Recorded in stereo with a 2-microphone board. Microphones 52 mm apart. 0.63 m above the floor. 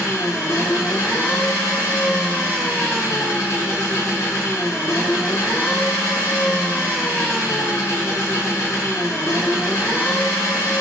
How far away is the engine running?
About 1.1 m.